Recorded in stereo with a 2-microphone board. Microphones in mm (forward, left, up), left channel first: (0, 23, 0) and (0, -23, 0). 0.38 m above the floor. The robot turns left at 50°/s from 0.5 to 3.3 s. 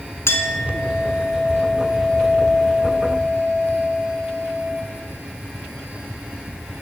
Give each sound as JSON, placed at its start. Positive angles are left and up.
{"t": 0.3, "sound": "a clink", "azimuth_deg": 105, "distance_m": 2.5}